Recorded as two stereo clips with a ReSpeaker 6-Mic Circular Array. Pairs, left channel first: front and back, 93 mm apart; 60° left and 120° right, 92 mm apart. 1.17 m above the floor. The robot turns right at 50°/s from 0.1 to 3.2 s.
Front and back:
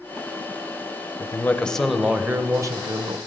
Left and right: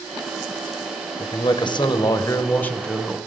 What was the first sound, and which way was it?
A man speaking, 55° left.